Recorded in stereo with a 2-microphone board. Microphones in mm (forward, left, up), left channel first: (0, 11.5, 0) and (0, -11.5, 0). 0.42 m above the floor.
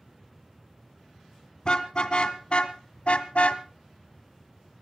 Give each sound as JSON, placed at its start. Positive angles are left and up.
{"t": 1.6, "sound": "a car horn", "side_deg": 50, "distance_m": 2.0}